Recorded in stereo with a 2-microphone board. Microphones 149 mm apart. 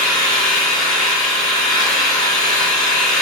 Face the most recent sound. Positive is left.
turn(degrees=5)  # may be behind; listen again after turning